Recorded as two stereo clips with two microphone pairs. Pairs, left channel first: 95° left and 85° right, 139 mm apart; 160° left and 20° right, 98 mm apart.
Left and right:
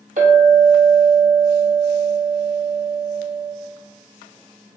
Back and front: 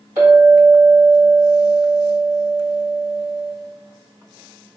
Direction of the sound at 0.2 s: 90° right.